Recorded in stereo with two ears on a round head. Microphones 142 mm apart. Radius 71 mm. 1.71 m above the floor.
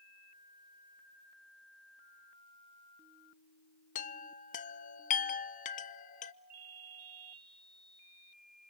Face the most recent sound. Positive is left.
turn(degrees=-60)  # may be behind; listen again after turning